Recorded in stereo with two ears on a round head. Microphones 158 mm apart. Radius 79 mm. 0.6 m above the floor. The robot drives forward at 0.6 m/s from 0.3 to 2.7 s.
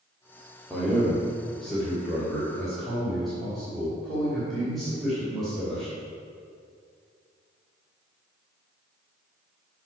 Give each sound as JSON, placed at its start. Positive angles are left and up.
{"t": 0.7, "sound": "a man speaking", "side_deg": 5, "distance_m": 1.7}